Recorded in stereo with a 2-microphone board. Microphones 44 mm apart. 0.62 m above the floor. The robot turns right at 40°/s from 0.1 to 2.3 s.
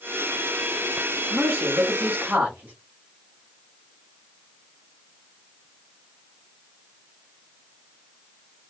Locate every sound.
1.3 s a man speaking: 85° right, 1.2 m; by 2.7 s 45° right, 1.2 m